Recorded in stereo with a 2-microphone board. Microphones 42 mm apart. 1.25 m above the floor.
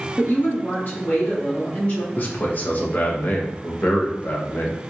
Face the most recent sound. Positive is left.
turn(degrees=40)  # may be behind; listen again after turning